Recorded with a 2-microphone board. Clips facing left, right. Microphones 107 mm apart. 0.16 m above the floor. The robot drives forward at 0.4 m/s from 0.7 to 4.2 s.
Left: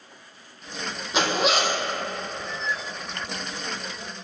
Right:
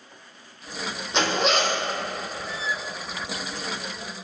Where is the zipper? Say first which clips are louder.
Even; 5° left (ahead or behind), 0.9 m.